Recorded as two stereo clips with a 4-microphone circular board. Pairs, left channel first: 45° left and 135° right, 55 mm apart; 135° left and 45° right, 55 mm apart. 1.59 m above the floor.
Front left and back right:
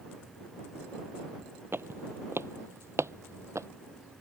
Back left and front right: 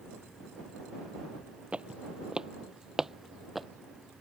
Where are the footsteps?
105° right; by 3.7 s 130° right.